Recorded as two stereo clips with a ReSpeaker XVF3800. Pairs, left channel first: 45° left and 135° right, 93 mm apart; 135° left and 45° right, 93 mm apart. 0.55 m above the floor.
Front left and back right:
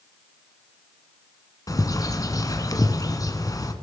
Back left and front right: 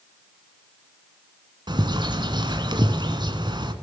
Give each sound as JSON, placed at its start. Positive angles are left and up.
{"t": 1.7, "sound": "a bird", "azimuth_deg": -5, "distance_m": 1.6}